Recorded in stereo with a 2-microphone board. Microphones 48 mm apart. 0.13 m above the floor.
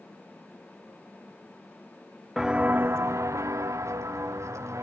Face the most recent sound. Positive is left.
turn(degrees=-75)  # may be behind; listen again after turning